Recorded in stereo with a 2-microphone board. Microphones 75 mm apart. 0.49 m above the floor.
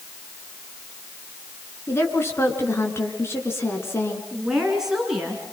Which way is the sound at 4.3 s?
5° right (ahead or behind).